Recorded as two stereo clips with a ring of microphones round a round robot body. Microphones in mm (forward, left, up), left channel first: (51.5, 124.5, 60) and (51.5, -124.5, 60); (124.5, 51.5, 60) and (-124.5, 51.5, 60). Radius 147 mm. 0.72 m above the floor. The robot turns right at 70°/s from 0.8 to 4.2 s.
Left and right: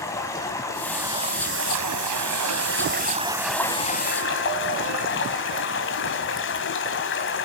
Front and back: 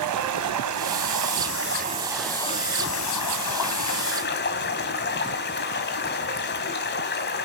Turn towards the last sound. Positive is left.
turn(degrees=50)